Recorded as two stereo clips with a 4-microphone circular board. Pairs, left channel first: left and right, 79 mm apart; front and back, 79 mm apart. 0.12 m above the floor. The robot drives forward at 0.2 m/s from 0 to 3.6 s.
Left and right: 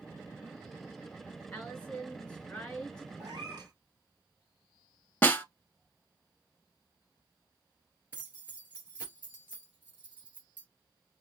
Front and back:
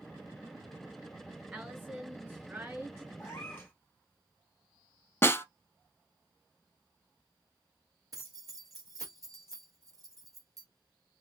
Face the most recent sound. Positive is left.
turn(degrees=-155)